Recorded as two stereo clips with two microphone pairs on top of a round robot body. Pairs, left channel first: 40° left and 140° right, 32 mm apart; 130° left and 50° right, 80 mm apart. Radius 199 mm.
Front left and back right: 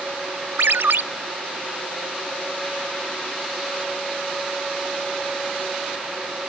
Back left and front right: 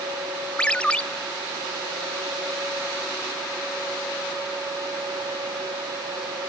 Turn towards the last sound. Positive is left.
turn(degrees=-150)